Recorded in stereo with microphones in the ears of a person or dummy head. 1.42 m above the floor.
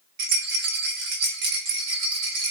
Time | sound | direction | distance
0.2 | a rattle | 60° right (ahead or behind) | 2.5 m